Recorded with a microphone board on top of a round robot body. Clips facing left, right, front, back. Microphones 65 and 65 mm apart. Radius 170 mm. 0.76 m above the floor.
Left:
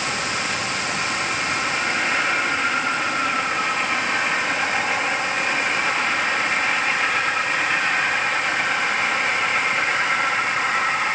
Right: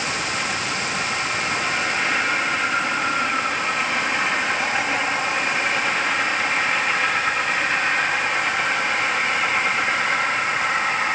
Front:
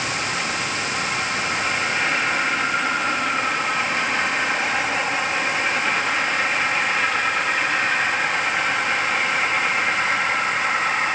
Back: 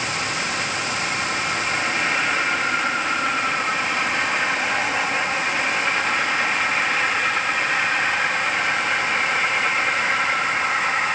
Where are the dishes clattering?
No dishes clattering in this recording.